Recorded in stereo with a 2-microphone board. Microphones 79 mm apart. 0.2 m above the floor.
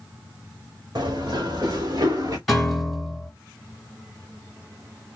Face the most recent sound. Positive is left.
turn(degrees=0)  # may be behind; listen again after turning